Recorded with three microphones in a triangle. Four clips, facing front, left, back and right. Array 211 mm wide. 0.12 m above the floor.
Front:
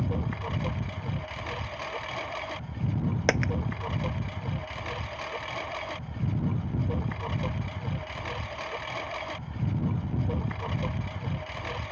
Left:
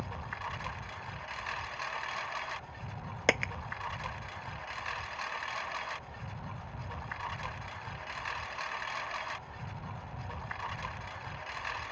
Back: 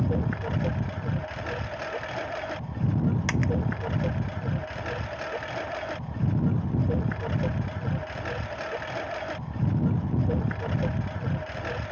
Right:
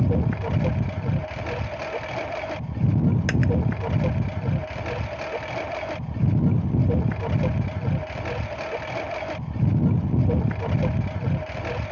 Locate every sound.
0.0 s a lawn mower: 105° right
3.3 s a dropped coin: 20° left